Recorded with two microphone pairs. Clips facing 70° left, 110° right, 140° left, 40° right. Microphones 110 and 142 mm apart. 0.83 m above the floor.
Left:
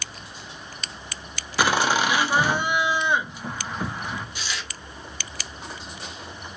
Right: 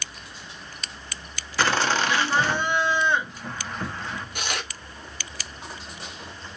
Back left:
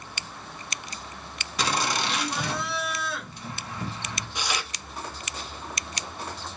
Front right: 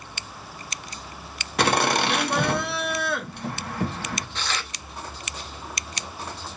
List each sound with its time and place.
1.6 s laughter: 15° right, 1.0 m
4.3 s tearing paper: 145° right, 0.7 m